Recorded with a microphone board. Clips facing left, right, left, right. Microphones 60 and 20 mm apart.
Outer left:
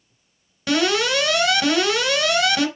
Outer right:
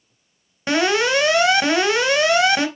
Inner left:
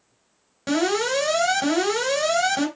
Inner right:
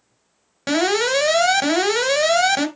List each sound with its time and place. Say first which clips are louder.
0.7 s an alarm: outer right 2 dB, inner right 3 dB; 25° right (ahead or behind), 3 m